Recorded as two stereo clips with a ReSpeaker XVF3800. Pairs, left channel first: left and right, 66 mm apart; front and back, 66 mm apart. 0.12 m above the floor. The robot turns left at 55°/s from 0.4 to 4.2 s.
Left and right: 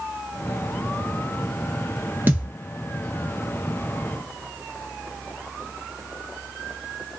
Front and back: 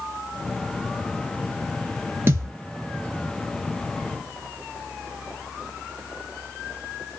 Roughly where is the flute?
I don't hear a flute.